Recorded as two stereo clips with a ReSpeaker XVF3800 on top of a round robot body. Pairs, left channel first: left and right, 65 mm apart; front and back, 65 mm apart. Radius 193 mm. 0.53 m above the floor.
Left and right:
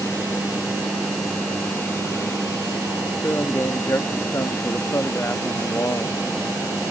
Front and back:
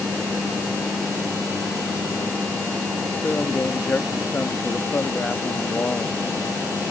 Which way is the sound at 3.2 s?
55° left.